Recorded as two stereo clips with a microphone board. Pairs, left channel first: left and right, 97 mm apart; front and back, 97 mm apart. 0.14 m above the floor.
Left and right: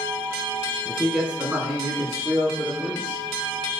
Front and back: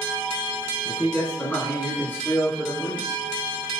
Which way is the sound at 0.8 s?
20° left.